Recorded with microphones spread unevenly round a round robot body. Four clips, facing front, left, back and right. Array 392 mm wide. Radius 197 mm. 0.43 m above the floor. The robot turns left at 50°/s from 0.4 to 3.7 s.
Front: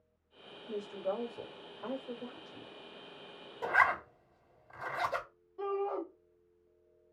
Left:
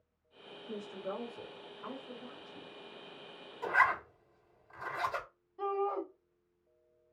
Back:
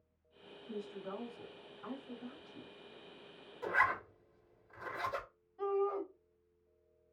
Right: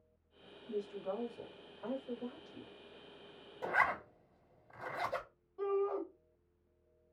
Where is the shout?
25° right, 1.9 m.